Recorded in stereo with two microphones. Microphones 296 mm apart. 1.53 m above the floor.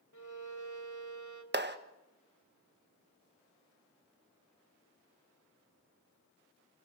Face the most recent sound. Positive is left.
turn(degrees=-35)  # may be behind; listen again after turning